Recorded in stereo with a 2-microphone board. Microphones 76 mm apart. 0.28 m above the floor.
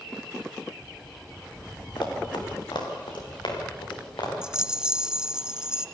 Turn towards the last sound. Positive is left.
turn(degrees=-10)  # may be behind; listen again after turning